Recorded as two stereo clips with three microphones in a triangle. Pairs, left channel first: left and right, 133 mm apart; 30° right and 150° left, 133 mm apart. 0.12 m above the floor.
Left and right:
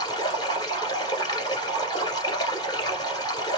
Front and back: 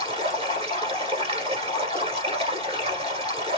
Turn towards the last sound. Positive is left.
turn(degrees=135)